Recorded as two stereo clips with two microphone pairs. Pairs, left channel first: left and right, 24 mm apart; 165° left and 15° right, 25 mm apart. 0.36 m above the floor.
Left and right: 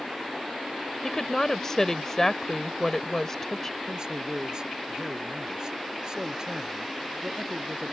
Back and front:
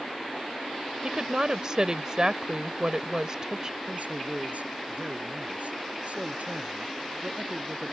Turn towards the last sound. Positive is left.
turn(degrees=-35)